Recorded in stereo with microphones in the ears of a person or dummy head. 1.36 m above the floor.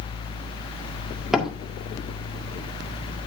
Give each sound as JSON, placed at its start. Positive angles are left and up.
{"t": 1.3, "sound": "a door slam", "side_deg": -5, "distance_m": 1.8}